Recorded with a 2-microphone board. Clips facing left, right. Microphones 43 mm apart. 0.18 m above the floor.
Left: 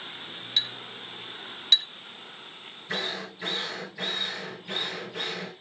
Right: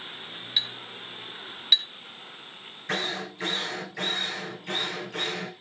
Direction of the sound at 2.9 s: 75° right (ahead or behind).